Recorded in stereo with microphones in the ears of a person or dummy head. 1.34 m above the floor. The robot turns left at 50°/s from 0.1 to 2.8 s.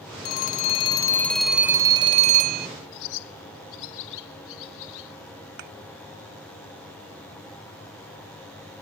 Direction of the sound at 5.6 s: 60° right (ahead or behind).